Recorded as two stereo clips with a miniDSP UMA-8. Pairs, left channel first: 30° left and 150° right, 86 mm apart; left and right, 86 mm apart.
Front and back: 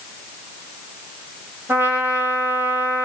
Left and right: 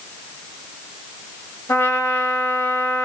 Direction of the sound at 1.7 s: 145° left.